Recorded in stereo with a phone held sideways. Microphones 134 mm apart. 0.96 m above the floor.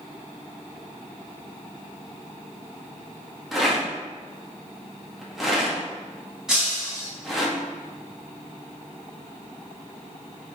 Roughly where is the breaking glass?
Centre.